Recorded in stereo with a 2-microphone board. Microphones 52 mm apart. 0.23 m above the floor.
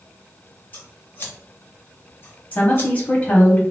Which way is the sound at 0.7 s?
40° left (ahead or behind).